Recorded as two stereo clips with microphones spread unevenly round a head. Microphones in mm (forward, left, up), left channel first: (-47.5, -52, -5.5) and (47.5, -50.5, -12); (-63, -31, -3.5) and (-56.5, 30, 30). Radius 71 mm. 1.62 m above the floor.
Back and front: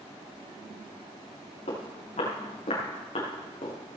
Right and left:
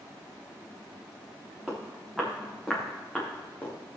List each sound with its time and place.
1.7 s footsteps: 165° left, 6 m; by 3.8 s 170° right, 4.5 m